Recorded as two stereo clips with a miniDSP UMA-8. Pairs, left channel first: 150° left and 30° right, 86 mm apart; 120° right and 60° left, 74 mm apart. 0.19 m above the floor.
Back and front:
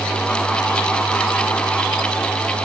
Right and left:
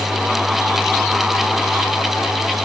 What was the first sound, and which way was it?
Only background noise.